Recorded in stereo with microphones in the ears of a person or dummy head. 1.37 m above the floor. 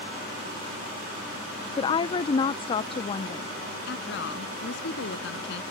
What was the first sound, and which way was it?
A woman speaking, 30° left (ahead or behind).